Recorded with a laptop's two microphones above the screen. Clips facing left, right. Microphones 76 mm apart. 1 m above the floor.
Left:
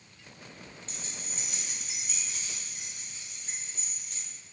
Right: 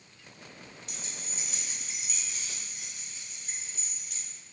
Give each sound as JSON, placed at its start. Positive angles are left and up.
{"t": 0.9, "sound": "keys jangling", "side_deg": 30, "distance_m": 0.6}